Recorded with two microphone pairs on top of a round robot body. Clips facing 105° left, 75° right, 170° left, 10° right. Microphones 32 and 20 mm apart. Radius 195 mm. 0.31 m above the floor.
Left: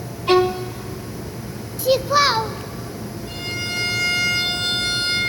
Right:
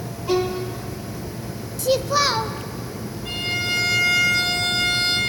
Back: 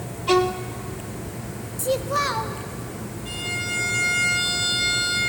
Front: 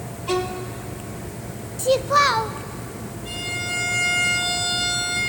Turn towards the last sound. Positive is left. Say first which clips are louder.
# right 4 dB, front 1 dB
turn(degrees=-100)